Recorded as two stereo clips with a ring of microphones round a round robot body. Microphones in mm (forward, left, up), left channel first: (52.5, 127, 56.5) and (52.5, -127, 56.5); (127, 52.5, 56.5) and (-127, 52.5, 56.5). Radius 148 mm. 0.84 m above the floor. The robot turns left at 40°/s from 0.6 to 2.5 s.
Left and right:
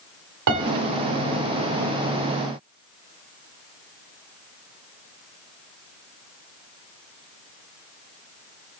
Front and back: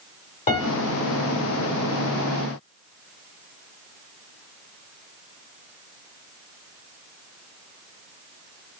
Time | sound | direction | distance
0.5 | a piano | 65° right | 1.1 m